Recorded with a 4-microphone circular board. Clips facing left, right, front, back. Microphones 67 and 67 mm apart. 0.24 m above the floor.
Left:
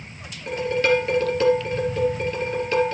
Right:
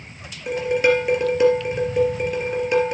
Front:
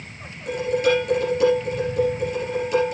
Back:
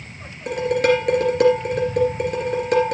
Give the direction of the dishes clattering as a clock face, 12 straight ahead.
5 o'clock.